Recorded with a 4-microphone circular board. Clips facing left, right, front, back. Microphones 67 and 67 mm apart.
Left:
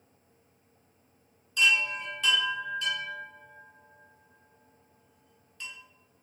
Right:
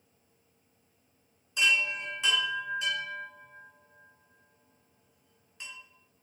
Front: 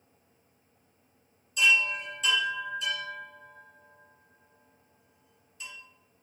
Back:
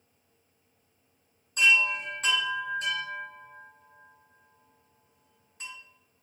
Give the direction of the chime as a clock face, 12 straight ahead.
5 o'clock.